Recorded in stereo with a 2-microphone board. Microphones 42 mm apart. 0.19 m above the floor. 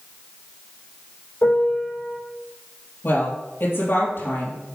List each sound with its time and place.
1.4 s a piano: 75° left (ahead or behind), 4 m
3.0 s a woman speaking: 55° left (ahead or behind), 4 m